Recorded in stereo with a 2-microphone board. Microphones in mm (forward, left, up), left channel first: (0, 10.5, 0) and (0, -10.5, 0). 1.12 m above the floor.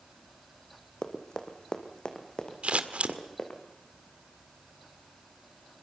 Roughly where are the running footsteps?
Left.